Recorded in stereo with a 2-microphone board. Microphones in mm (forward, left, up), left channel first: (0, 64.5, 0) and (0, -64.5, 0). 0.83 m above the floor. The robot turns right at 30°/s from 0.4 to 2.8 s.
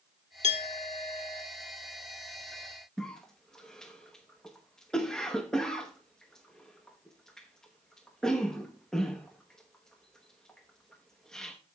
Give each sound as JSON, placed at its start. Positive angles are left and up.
{"t": 0.4, "sound": "a clink", "azimuth_deg": 105, "distance_m": 1.5}
{"t": 3.0, "sound": "a cough", "side_deg": 5, "distance_m": 0.8}